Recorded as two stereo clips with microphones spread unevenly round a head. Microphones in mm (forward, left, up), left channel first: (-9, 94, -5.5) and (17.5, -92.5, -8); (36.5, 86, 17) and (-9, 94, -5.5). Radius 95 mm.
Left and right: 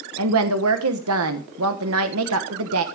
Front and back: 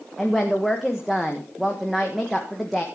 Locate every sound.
0.2 s a woman speaking: 95° right, 1.1 m